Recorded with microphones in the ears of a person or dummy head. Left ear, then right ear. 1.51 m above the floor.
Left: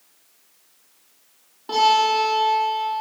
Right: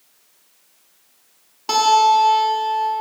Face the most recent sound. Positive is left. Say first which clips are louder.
# right 4 dB
turn(degrees=-70)  # may be behind; listen again after turning